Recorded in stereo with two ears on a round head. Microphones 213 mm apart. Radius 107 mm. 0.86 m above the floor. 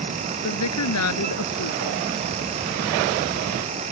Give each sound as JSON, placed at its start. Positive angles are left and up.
{"t": 0.4, "sound": "a woman speaking", "side_deg": 80}